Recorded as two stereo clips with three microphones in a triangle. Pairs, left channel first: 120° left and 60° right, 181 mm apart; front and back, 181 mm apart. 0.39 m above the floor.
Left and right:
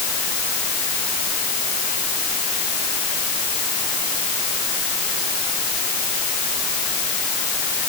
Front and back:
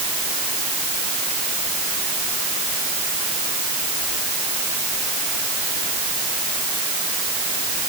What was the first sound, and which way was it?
Only background noise.